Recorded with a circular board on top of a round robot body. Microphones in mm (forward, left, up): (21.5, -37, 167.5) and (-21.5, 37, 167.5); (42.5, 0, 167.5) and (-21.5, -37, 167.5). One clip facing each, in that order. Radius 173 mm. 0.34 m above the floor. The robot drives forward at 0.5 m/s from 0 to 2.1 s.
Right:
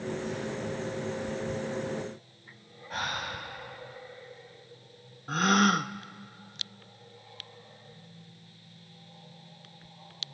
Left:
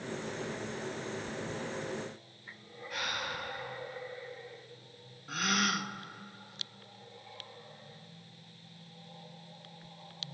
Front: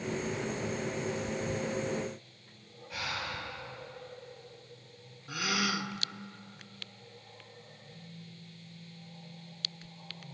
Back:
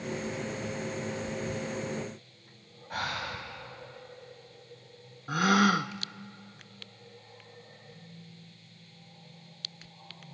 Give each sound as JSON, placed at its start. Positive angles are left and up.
{"t": 2.9, "sound": "breathing", "azimuth_deg": -110, "distance_m": 2.5}
{"t": 5.3, "sound": "a gasp", "azimuth_deg": -110, "distance_m": 0.5}